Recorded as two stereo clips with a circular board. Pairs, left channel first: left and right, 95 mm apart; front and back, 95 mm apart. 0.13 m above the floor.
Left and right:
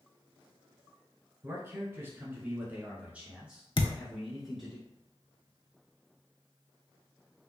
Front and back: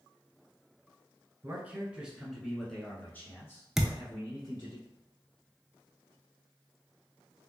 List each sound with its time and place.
1.4 s a man speaking: 130° right, 1.3 m; by 4.8 s straight ahead, 1.6 m
3.8 s a thud: 95° left, 0.5 m